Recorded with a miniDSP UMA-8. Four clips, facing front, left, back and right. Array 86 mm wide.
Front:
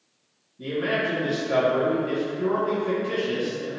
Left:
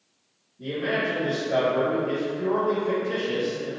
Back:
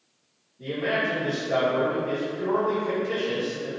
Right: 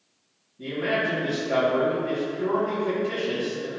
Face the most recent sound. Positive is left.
turn(degrees=-40)